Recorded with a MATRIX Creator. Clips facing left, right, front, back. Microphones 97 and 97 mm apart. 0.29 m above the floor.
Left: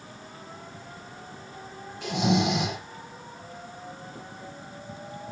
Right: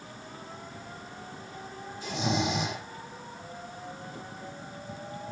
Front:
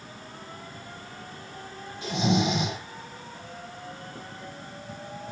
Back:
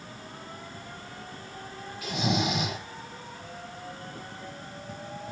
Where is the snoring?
60° left, 6.5 m.